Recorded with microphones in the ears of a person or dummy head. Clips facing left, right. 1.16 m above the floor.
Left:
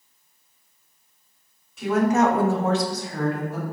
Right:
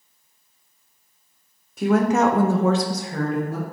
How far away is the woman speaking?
About 0.7 m.